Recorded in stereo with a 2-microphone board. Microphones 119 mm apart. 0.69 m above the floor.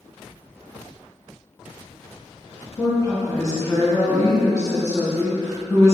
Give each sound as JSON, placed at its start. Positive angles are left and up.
{"t": 2.8, "sound": "a woman speaking", "side_deg": 25, "distance_m": 1.1}